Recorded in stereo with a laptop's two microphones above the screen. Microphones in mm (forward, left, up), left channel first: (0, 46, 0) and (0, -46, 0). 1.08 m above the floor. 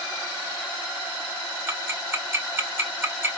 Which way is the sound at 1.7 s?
25° right (ahead or behind).